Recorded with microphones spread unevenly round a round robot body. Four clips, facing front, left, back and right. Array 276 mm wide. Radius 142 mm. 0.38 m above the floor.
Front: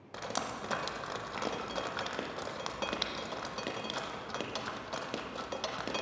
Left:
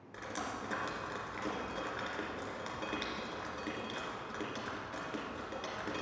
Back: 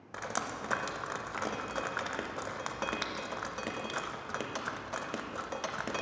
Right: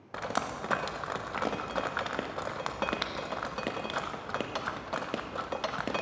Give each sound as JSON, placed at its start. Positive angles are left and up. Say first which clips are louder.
{"t": 0.1, "sound": "dripping", "louder": "right 8 dB, back 1 dB", "azimuth_deg": -90, "distance_m": 0.5}